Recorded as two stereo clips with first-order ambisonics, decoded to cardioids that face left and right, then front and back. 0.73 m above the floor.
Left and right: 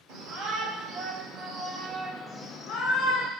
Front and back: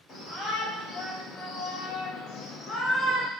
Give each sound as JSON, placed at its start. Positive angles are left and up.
{"t": 0.1, "sound": "a shout", "azimuth_deg": -55, "distance_m": 1.9}